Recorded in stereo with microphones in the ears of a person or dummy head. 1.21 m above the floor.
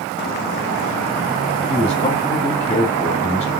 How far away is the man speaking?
About 2.5 m.